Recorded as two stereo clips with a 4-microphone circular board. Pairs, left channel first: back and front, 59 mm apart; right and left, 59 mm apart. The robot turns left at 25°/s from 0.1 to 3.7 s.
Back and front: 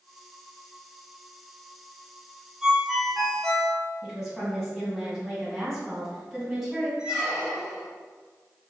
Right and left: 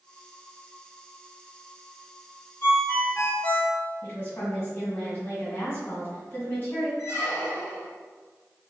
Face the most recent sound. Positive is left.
turn(degrees=-70)